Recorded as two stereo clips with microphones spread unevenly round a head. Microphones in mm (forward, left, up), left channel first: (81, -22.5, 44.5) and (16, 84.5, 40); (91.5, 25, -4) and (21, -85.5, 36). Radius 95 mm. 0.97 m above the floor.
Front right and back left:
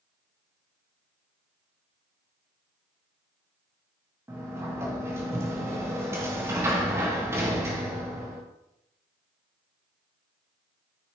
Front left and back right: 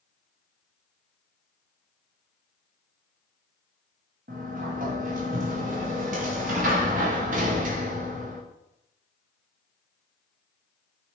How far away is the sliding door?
About 1.4 m.